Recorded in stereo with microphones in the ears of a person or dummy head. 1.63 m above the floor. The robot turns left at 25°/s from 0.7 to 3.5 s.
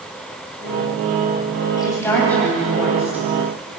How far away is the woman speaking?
About 9 m.